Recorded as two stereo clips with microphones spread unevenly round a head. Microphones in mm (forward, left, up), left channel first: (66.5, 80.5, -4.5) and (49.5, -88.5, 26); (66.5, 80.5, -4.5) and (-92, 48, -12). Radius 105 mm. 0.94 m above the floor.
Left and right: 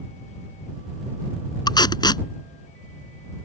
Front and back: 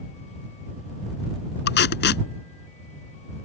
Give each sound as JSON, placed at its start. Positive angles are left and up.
{"t": 1.7, "sound": "tape being pulled", "azimuth_deg": 15}